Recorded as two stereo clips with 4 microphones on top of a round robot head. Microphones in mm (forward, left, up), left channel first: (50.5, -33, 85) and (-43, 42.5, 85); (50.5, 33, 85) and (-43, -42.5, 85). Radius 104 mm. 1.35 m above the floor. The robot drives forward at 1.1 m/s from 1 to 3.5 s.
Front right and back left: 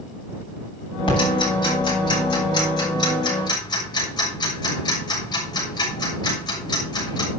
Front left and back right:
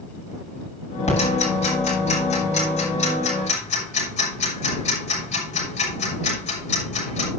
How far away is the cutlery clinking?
No cutlery clinking in this recording.